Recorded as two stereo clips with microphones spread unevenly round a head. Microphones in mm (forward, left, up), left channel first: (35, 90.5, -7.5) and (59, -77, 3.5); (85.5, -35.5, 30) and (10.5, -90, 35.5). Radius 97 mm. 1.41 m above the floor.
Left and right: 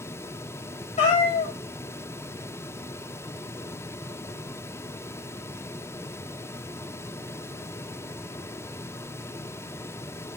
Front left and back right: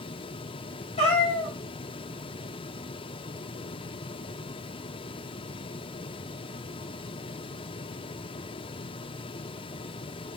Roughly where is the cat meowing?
Ahead left.